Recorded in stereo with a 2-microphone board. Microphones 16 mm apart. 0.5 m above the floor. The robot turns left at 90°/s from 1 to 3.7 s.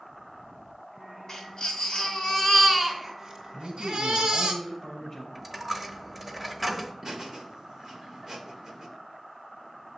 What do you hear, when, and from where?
1.3 s a baby crying: 140° left, 2.5 m; by 4.5 s 75° right, 2.5 m
3.5 s a man speaking: 25° left (ahead or behind), 3.5 m; by 5.2 s 10° left (ahead or behind), 3.5 m
5.3 s a dropped coin: 10° right (ahead or behind), 0.9 m
7.0 s laughter: 35° right (ahead or behind), 1.6 m